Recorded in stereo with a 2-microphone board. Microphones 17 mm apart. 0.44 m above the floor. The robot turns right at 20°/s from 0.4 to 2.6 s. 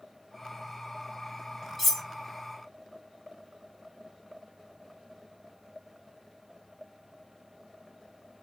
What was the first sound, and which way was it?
Cutlery clinking, centre (ahead or behind).